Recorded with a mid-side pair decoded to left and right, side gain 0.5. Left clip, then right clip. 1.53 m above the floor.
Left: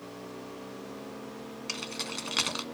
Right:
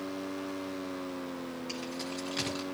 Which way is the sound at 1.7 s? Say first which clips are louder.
Left 6 dB; 70° left.